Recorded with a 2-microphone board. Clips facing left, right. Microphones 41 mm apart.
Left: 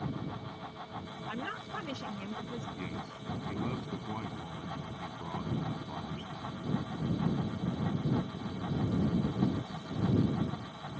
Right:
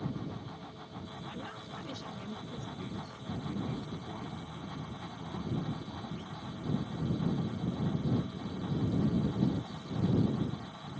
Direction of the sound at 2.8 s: 50° left (ahead or behind).